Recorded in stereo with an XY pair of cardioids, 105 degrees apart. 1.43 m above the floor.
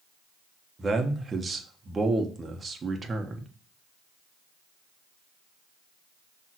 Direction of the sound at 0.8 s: 30° right.